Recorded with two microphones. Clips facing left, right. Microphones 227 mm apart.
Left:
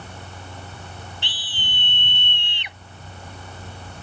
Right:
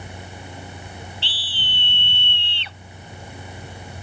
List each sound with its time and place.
1.2 s a scream: 15° left (ahead or behind)